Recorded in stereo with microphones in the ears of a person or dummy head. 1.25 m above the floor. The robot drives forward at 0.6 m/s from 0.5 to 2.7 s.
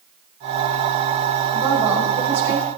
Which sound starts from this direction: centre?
A woman speaking, at 1.5 s.